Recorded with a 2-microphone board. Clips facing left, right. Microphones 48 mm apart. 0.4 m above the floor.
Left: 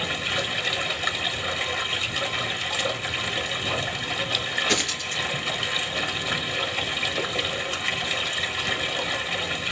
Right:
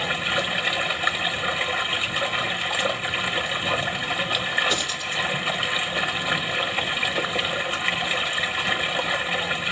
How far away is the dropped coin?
About 1.8 m.